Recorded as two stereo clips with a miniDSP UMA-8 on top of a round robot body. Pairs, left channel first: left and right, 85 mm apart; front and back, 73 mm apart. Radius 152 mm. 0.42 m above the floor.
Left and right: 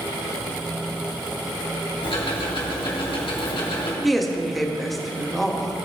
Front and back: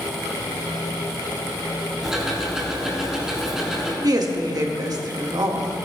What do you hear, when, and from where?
2.0 s ticking: 95° left, 2.5 m
4.0 s a woman speaking: straight behind, 1.6 m